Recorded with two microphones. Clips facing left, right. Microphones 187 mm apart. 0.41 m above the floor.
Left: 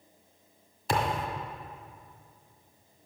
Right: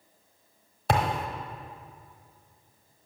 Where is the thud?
75° right (ahead or behind), 1.1 m.